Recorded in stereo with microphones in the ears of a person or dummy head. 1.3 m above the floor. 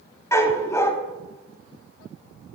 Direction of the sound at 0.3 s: 15° left (ahead or behind).